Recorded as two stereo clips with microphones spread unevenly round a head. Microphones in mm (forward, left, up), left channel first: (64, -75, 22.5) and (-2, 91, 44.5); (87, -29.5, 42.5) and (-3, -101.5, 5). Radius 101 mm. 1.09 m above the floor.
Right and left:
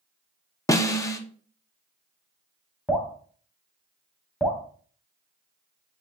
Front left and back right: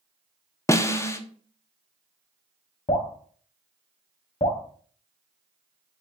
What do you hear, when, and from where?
0.7 s a snare drum: 40° right, 0.7 m
2.9 s dripping: 20° left, 1.9 m